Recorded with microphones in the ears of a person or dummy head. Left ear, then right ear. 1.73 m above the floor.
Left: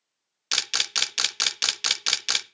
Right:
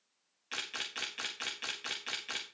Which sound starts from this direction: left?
A camera shutter, at 0.5 s.